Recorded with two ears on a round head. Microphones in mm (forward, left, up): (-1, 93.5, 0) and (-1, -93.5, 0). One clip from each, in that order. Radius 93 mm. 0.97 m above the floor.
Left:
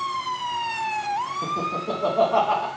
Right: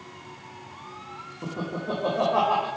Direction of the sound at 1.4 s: 60° left (ahead or behind).